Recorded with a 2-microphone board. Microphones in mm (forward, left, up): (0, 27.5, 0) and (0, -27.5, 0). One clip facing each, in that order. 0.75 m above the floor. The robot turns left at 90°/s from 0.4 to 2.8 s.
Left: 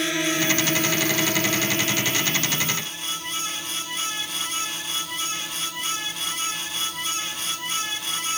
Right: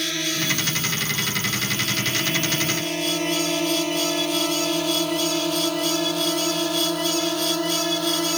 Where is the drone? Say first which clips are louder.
Left 3 dB; 20° left (ahead or behind); by 8.4 s 70° right (ahead or behind).